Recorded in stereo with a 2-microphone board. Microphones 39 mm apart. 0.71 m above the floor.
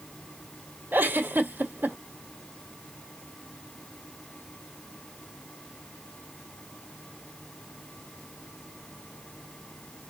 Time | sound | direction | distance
0.9 | a giggle | 60° right (ahead or behind) | 1.2 m